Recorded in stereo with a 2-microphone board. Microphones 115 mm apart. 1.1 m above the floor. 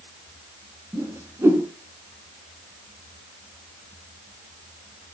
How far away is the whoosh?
About 6 m.